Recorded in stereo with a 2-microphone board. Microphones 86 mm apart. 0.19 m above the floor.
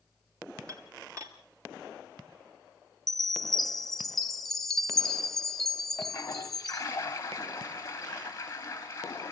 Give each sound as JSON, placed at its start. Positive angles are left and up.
{"t": 0.7, "sound": "dishes clattering", "side_deg": -35, "distance_m": 2.5}
{"t": 3.1, "sound": "a chime", "side_deg": 5, "distance_m": 1.1}
{"t": 6.0, "sound": "a toilet flushing", "side_deg": 30, "distance_m": 4.0}